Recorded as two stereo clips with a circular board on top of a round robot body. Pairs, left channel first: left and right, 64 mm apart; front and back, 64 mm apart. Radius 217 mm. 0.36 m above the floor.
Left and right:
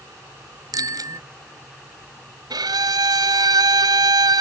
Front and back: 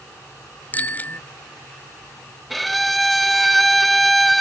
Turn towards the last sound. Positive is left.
turn(degrees=-90)